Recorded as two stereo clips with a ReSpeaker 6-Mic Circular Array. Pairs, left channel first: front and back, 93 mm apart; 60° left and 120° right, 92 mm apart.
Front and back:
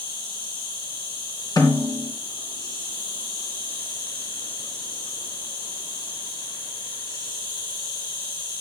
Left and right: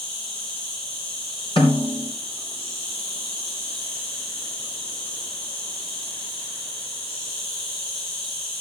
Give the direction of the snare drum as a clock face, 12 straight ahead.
11 o'clock.